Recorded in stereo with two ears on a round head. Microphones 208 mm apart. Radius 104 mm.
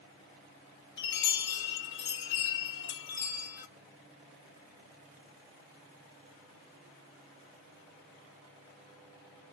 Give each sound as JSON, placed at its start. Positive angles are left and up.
{"t": 1.0, "sound": "a chime", "side_deg": 50, "distance_m": 1.0}